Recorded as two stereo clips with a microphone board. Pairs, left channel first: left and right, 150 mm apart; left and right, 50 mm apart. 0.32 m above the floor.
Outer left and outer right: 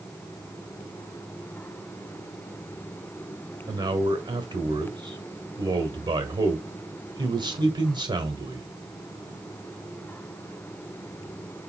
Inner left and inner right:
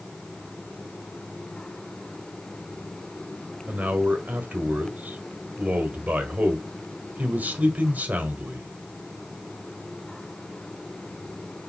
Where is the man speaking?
30° right (ahead or behind), 1.4 m.